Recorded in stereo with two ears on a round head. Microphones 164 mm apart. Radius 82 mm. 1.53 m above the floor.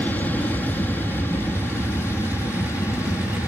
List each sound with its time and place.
0.0 s an aircraft: 10° left (ahead or behind); by 3.5 s 15° left (ahead or behind)